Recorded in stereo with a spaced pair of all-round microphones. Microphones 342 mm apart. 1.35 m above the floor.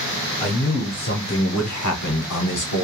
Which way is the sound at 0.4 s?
20° left (ahead or behind).